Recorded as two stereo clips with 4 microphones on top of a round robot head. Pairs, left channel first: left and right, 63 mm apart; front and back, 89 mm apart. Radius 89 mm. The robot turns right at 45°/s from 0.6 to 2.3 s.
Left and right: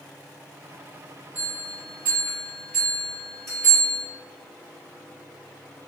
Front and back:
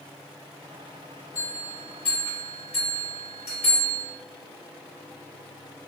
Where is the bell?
50° right, 2.0 m; by 4.0 s 5° right, 2.0 m.